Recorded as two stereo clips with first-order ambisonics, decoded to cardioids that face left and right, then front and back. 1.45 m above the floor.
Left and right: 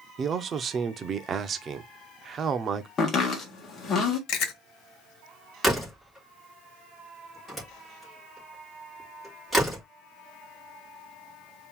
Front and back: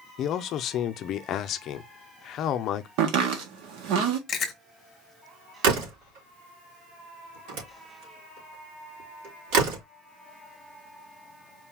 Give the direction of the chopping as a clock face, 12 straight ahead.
7 o'clock.